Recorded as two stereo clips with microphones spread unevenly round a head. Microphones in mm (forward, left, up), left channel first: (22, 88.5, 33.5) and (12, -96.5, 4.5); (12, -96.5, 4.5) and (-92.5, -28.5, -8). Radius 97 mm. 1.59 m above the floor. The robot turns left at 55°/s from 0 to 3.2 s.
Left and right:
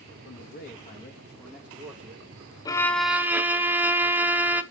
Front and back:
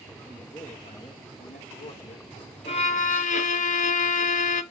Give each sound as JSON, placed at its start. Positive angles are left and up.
{"t": 0.2, "sound": "a man speaking", "azimuth_deg": 70, "distance_m": 1.9}
{"t": 2.6, "sound": "a violin", "azimuth_deg": 20, "distance_m": 0.7}